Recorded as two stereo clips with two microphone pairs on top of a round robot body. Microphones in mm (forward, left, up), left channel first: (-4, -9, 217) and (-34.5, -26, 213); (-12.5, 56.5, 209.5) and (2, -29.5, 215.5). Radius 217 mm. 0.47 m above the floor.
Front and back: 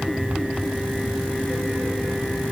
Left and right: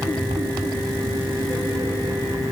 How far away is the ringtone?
I don't hear a ringtone.